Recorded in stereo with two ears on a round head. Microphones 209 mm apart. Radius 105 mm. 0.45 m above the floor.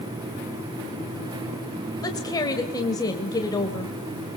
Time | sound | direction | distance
2.0 | a woman speaking | 15° left (ahead or behind) | 1.8 m